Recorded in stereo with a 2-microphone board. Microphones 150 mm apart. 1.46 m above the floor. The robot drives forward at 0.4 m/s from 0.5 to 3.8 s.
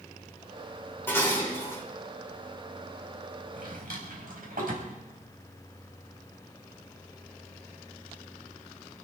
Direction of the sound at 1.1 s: 15° left (ahead or behind).